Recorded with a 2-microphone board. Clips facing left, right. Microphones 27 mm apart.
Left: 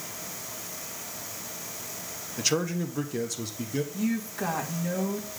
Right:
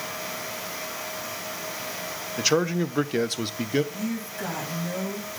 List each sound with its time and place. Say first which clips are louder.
2.4 s a man speaking: right 5 dB; 15° right (ahead or behind), 0.6 m; by 3.8 s 45° right (ahead or behind), 0.6 m
3.9 s a woman speaking: left 1 dB; 25° left (ahead or behind), 2.5 m